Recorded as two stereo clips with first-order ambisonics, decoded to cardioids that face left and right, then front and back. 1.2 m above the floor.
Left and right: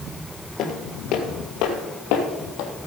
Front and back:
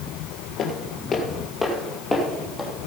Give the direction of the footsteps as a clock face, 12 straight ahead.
10 o'clock.